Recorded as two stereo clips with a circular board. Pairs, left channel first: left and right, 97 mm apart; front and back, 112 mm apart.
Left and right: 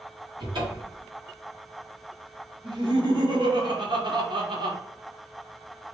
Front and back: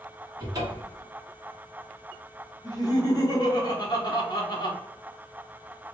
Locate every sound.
0.4 s a cupboard door: 125° right, 1.3 m
2.6 s laughter: 55° right, 1.1 m